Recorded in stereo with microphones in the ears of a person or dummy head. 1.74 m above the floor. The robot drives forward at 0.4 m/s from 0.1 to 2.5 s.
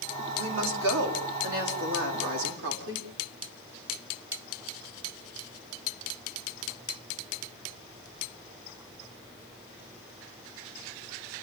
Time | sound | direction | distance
0.3 | a woman speaking | 80° right | 4.5 m